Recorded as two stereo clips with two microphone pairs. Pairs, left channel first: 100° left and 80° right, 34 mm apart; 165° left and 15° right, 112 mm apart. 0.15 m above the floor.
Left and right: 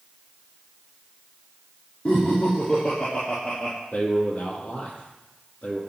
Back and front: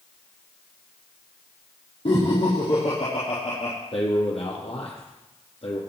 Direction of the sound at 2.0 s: 140° left.